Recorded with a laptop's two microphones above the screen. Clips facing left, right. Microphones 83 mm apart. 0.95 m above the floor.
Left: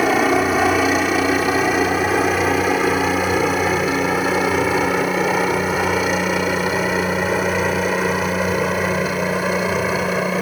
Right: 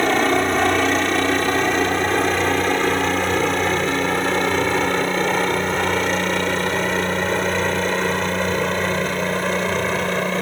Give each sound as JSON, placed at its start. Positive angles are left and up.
{"t": 0.0, "sound": "a helicopter", "side_deg": 5}